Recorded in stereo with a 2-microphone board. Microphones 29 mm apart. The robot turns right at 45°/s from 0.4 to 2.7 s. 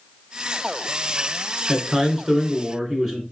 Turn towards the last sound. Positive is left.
turn(degrees=-20)  # may be behind; listen again after turning